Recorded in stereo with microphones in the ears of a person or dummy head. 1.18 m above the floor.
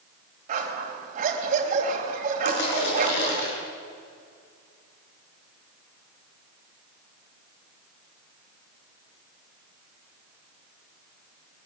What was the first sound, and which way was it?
A dog barking, 40° right (ahead or behind).